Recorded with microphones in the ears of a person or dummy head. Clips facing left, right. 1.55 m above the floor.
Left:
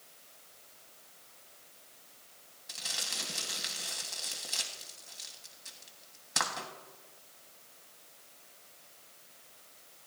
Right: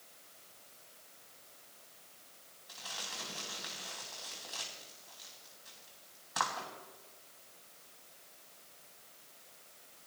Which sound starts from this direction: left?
Crumpling, at 2.7 s.